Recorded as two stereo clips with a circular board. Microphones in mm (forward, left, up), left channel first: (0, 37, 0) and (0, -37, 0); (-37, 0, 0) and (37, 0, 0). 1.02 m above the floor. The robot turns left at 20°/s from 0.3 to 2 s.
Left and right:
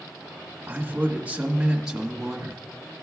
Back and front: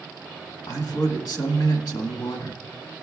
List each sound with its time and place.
0.7 s a man speaking: 145° right, 1.5 m; by 2.6 s 175° right, 1.5 m